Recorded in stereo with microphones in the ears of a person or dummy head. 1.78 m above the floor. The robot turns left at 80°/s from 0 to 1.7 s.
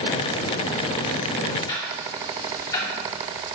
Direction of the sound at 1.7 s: 20° left (ahead or behind).